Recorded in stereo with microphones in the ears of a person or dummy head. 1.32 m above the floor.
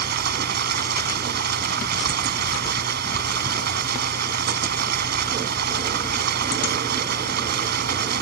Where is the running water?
55° right (ahead or behind).